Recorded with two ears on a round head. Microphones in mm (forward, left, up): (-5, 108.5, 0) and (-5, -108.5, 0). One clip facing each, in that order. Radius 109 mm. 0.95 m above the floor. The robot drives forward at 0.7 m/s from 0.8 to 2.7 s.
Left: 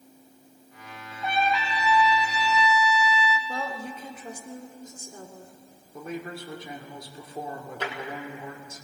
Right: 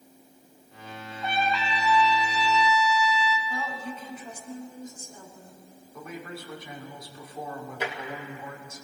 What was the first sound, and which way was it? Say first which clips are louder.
A trumpet: left 2 dB; 5° left (ahead or behind).